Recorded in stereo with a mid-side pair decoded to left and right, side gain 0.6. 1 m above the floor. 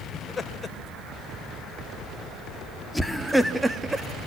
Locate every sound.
0.1 s laughter: 20° left, 6 m; by 4.1 s 20° right, 2 m